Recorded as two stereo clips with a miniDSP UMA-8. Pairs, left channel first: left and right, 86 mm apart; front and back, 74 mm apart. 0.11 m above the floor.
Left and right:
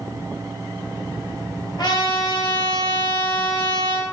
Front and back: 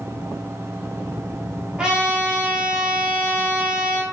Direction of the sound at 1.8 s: 105° left.